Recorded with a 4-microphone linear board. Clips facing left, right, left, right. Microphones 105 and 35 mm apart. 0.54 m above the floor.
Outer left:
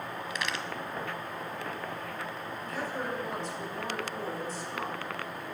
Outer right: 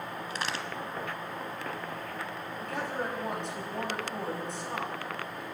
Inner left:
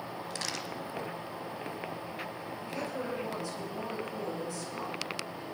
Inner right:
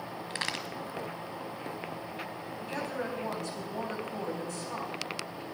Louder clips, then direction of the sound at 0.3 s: Outer right 1 dB, inner right 4 dB; 40° right (ahead or behind).